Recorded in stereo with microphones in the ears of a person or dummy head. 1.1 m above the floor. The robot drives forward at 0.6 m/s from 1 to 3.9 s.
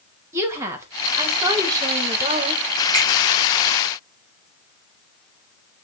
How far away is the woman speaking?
About 1.7 m.